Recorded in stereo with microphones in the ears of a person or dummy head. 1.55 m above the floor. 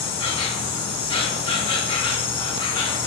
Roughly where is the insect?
Left.